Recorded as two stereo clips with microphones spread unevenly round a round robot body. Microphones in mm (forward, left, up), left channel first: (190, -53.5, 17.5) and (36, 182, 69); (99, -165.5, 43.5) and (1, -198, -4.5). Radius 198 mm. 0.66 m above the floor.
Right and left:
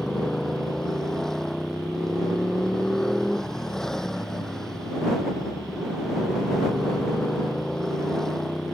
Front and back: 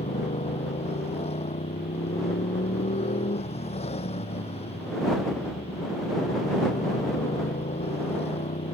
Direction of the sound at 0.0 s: 30° left.